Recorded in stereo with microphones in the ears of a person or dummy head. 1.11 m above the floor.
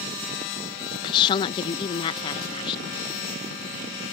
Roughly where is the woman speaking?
Left.